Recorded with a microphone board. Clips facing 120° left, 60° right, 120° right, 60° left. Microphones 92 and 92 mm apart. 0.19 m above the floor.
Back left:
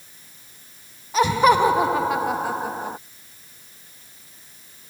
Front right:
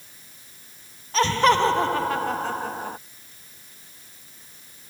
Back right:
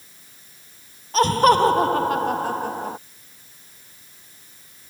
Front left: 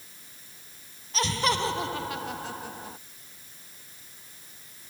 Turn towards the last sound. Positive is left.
turn(degrees=-160)